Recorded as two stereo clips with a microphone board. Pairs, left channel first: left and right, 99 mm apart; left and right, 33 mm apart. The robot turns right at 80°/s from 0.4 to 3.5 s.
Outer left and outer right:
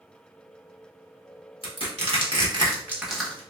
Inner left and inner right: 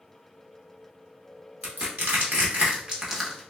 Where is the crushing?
60° right (ahead or behind), 1.1 m; by 3.4 s 20° left (ahead or behind), 1.1 m.